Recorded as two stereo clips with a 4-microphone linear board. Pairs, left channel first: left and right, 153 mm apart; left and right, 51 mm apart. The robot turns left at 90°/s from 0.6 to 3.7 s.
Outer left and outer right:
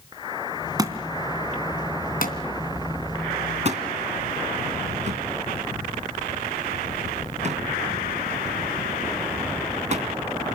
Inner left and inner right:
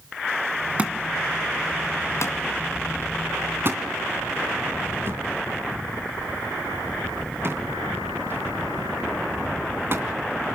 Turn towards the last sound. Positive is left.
turn(degrees=-45)  # may be behind; listen again after turning